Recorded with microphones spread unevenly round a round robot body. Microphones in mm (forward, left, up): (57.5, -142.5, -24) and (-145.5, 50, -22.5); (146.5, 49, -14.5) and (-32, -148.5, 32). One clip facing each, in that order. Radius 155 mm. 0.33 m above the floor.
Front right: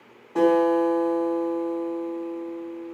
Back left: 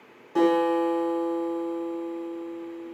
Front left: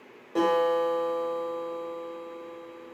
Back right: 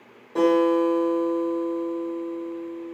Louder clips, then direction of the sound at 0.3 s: Front right 2 dB, back right 6 dB; 95° left.